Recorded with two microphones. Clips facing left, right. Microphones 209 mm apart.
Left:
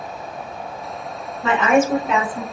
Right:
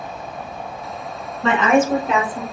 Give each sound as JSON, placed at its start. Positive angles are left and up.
{"t": 1.4, "sound": "a woman speaking", "side_deg": 5, "distance_m": 1.4}